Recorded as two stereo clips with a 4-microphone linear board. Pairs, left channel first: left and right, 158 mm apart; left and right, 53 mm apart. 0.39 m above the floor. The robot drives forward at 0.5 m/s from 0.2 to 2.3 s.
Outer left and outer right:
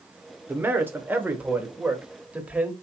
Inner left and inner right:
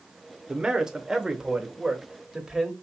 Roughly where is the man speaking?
Centre.